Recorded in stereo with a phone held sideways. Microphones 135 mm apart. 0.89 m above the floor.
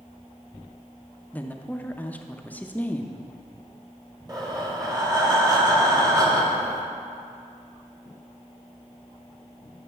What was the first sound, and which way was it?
A woman speaking, 10° left (ahead or behind).